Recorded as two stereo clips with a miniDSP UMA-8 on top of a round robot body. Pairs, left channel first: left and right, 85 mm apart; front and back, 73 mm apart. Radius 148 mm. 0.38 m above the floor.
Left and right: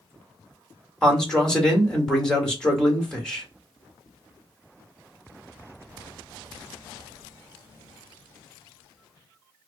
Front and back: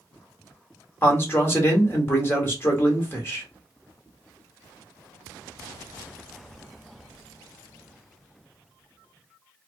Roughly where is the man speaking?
Ahead.